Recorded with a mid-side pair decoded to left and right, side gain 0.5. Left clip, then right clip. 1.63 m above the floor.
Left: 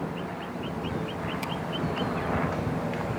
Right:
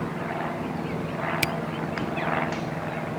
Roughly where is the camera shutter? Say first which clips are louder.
Right 9 dB; right.